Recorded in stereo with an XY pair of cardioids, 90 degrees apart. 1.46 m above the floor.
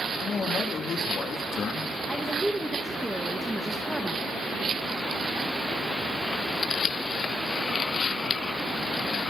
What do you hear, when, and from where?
0.2 s a man speaking: 55° left, 3.5 m
2.1 s a woman speaking: 5° right, 1.7 m